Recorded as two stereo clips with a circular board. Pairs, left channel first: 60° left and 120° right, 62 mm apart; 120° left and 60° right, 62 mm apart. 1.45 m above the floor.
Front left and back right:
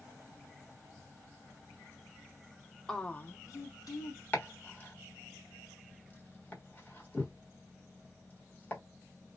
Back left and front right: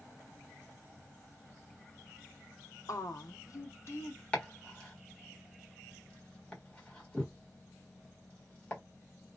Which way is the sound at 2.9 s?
140° left.